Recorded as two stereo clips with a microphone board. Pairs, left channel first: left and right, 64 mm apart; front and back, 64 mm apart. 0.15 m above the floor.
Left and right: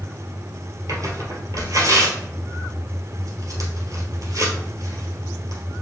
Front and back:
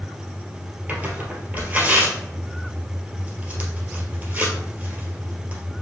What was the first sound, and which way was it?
Tearing paper, 110° right.